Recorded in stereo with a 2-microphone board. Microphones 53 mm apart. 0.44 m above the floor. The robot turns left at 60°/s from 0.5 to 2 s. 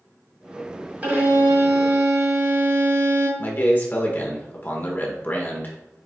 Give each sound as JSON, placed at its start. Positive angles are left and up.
{"t": 1.0, "sound": "a violin", "azimuth_deg": -30, "distance_m": 1.5}
{"t": 3.4, "sound": "a man speaking", "side_deg": 35, "distance_m": 0.9}